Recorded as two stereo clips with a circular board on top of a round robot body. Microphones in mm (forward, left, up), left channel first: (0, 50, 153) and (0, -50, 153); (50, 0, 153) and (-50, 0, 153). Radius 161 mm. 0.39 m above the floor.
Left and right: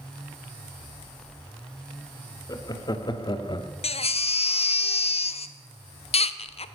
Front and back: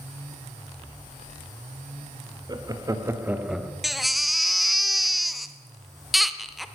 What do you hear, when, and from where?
2.5 s laughter: 135° left, 1.9 m; by 3.7 s 90° left, 1.3 m
3.8 s a baby crying: 90° left, 0.8 m